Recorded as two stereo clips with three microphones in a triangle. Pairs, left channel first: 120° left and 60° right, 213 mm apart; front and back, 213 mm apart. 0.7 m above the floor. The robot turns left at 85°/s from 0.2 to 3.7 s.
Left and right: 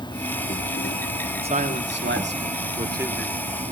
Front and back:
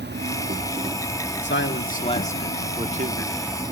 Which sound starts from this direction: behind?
An insect, at 0.0 s.